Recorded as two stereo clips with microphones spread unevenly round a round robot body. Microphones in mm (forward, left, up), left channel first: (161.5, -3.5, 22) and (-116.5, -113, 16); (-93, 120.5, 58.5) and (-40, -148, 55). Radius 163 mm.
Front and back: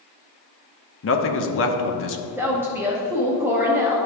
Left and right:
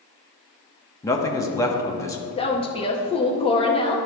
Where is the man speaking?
25° left, 0.9 m.